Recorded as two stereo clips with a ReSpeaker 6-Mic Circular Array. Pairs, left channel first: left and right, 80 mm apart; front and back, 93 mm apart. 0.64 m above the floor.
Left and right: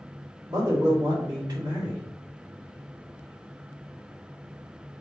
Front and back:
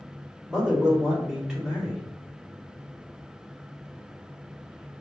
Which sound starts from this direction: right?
A man speaking, at 0.5 s.